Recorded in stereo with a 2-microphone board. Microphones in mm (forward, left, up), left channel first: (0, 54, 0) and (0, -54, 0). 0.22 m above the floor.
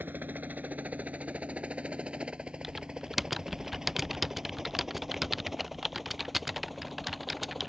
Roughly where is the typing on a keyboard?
Centre.